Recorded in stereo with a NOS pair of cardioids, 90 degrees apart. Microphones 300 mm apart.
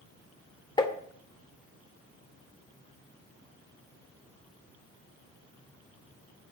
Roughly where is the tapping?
Ahead.